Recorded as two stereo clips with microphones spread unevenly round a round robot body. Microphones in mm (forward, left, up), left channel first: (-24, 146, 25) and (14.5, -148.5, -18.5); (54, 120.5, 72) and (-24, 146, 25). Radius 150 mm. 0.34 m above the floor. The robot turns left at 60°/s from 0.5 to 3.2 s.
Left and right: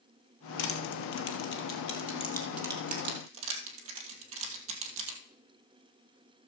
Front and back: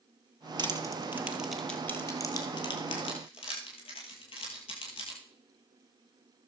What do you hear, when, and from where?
0.6 s crushing: 125° left, 2 m; by 5.2 s 35° right, 2 m